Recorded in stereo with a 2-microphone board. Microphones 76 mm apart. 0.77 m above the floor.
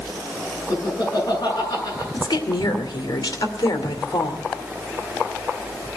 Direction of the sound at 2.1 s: 65° left (ahead or behind).